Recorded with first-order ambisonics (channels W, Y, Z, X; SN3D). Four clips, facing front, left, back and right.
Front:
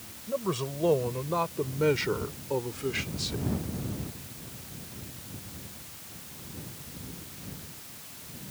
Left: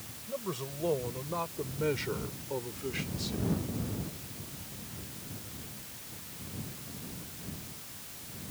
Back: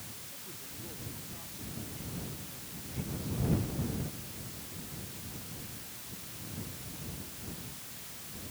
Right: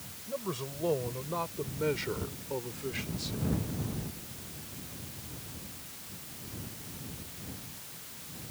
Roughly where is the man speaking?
Ahead.